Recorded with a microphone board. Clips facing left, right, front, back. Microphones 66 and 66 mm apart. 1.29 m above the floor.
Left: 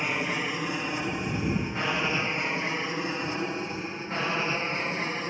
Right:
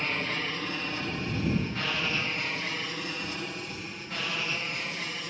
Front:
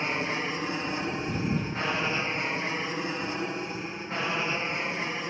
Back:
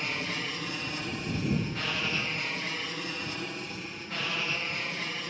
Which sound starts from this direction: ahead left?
An aircraft, at 0.0 s.